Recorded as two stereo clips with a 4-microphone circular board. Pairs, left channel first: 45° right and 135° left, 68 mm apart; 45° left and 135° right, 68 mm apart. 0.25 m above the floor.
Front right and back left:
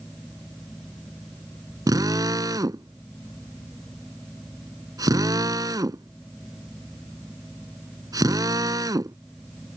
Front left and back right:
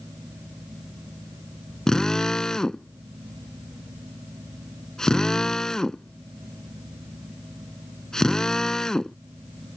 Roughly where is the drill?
Behind left.